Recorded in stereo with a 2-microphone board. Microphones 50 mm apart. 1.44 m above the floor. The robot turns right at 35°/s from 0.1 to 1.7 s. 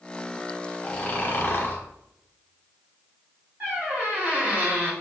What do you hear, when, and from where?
0.8 s snoring: 30° left, 0.6 m; by 1.8 s 60° left, 0.6 m
3.6 s a squeak: 45° right (ahead or behind), 1.2 m